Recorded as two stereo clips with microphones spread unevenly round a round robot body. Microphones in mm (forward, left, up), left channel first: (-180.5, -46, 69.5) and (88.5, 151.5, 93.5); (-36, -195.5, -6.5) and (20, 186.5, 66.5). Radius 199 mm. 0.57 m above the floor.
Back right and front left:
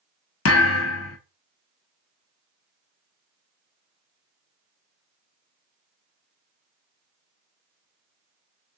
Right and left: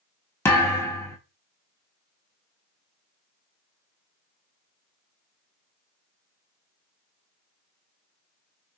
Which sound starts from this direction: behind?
A thud, at 0.5 s.